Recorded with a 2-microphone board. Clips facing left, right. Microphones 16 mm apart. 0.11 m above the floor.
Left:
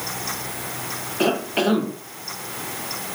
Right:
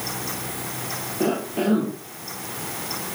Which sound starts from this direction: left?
A cough, at 1.2 s.